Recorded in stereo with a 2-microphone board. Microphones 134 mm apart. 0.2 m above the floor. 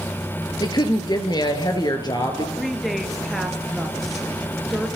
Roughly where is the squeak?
I don't hear a squeak.